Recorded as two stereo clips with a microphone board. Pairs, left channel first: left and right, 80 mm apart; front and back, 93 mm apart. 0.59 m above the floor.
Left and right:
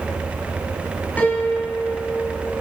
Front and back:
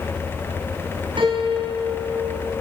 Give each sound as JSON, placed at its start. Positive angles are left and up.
{"t": 1.2, "sound": "a piano", "azimuth_deg": 160, "distance_m": 5.0}